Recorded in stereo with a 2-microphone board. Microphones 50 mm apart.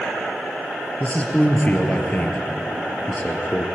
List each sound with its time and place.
1.0 s a man speaking: 30° left (ahead or behind), 2.0 m